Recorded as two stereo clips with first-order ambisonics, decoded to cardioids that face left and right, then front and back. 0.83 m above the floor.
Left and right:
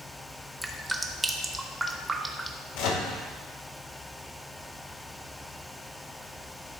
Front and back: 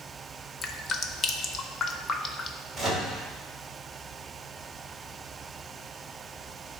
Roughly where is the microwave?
Left.